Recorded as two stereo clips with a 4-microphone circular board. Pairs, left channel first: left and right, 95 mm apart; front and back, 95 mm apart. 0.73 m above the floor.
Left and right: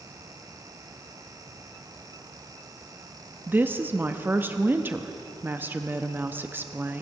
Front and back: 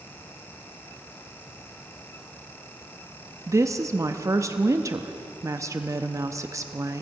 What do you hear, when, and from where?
3.5 s a woman speaking: 150° right, 0.6 m